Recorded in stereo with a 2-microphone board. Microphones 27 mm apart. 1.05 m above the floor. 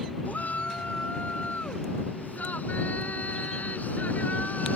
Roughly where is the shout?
Left.